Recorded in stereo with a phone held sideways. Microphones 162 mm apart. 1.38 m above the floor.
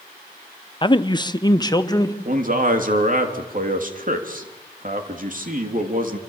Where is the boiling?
I don't hear boiling.